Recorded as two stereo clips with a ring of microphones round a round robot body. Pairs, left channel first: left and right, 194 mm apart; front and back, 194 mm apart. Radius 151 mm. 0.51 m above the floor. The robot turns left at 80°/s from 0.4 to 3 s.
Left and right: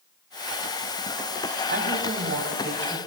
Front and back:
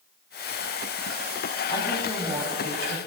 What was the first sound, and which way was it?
A woman speaking, 65° right.